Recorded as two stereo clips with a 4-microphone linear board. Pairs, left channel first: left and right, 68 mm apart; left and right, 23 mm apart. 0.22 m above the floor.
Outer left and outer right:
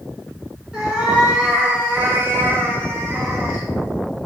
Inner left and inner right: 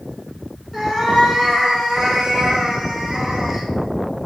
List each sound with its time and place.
0.7 s a cat meowing: 10° right (ahead or behind), 1.2 m; by 3.6 s 25° right (ahead or behind), 0.9 m